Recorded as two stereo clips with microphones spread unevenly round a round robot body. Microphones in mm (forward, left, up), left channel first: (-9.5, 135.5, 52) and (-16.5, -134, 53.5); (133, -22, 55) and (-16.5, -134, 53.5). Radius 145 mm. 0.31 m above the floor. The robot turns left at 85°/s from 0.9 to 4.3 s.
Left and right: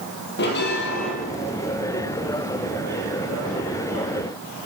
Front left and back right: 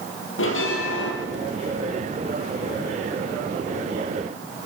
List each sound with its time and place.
0.4 s a bell: 35° left, 4 m; by 1.1 s 15° left, 4 m